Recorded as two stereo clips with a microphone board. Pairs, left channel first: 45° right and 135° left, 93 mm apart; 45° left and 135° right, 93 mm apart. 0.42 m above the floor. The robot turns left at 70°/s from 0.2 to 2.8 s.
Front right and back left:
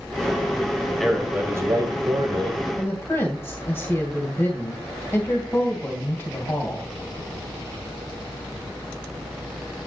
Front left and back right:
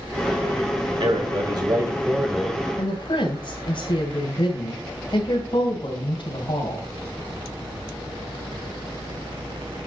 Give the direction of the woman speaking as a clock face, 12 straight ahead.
11 o'clock.